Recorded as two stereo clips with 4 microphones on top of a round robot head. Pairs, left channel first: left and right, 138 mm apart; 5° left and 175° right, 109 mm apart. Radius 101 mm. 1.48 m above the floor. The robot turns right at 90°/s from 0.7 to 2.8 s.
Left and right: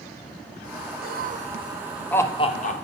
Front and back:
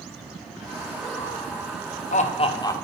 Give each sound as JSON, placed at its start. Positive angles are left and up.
{"t": 1.0, "sound": "laughter", "azimuth_deg": -90, "distance_m": 1.0}